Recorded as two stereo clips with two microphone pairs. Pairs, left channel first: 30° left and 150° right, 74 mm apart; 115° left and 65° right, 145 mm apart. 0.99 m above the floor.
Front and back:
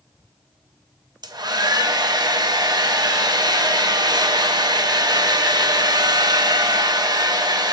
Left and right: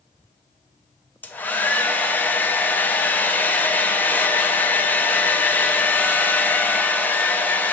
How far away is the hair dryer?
About 0.5 m.